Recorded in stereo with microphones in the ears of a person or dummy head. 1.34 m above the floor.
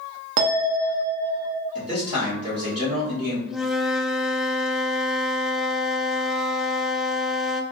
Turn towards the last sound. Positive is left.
turn(degrees=0)  # may be behind; listen again after turning